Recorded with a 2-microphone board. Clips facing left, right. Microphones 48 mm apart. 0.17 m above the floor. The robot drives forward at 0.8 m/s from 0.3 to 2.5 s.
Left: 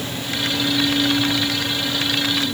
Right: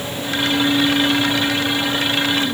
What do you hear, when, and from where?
Only background noise.